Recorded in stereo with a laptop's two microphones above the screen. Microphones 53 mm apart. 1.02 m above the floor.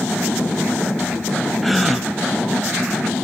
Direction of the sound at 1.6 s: Centre (ahead or behind).